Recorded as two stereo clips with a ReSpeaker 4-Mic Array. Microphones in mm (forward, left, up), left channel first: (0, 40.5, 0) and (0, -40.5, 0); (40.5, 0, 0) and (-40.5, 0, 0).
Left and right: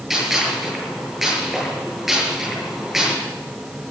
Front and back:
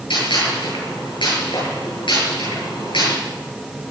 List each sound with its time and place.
0.1 s a gunshot: 5° right, 8.5 m